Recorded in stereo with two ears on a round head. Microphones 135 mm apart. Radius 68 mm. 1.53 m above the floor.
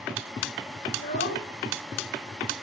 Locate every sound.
0.9 s a child speaking: 80° left, 2.5 m